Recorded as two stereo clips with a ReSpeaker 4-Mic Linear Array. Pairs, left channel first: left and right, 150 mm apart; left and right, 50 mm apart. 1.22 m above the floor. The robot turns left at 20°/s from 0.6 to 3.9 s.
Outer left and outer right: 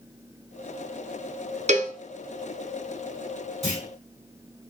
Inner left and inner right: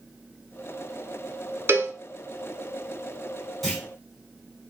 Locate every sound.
1.7 s a cowbell: 50° right (ahead or behind), 0.7 m
3.6 s a clunk: centre (ahead or behind), 3.5 m; by 3.9 s 5° left (ahead or behind), 3.5 m